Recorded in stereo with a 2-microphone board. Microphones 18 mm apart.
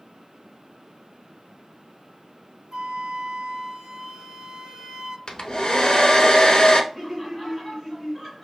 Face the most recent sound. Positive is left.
turn(degrees=15)  # may be behind; listen again after turning